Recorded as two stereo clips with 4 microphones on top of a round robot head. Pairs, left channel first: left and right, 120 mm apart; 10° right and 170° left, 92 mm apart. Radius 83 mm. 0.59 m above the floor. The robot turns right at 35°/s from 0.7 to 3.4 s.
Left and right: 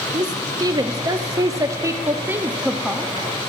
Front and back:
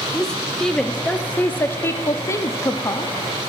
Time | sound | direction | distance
0.1 | a woman speaking | 90° right | 0.7 m